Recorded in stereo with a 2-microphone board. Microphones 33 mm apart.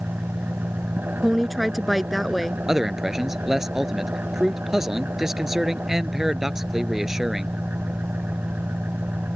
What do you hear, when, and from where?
0.0 s an engine running: 70° right (ahead or behind)
1.2 s a woman speaking: centre (ahead or behind)
2.7 s a man speaking: 15° right (ahead or behind)